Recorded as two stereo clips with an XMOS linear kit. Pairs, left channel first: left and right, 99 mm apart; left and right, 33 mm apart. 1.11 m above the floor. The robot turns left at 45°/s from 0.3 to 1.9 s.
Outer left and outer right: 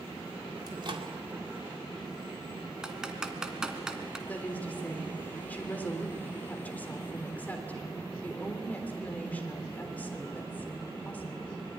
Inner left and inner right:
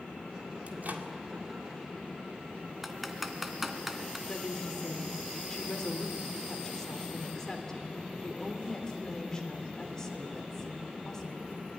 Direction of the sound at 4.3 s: 15° left (ahead or behind).